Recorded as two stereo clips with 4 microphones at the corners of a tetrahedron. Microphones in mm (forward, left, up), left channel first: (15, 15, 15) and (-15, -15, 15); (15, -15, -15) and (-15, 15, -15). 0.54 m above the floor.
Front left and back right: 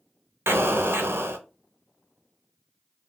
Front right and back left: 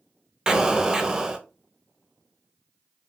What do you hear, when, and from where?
0.5 s an explosion: 155° right, 0.7 m